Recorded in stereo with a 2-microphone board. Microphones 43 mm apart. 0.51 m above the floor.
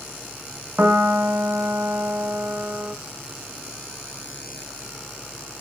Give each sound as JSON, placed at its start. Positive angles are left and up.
{"t": 0.8, "sound": "a piano", "side_deg": -50, "distance_m": 0.8}